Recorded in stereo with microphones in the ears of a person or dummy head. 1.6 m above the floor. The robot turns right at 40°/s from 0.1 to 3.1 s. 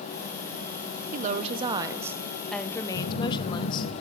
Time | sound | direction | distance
1.1 | a woman speaking | 45° right | 0.8 m
2.9 | a phone buzzing | 65° left (ahead or behind) | 1.3 m